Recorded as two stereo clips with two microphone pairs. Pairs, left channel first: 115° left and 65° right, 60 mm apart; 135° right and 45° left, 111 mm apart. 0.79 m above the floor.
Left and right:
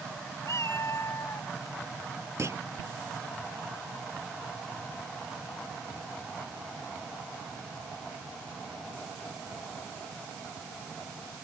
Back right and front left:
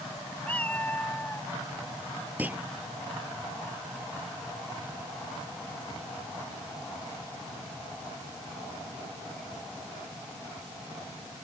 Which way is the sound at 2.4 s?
30° right.